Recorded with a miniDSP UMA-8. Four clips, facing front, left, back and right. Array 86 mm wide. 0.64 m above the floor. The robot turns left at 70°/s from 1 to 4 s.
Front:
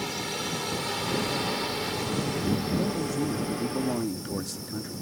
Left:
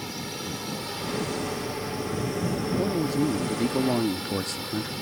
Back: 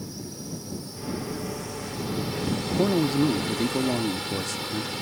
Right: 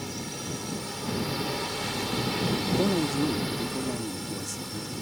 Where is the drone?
10° left; by 5.0 s 160° left.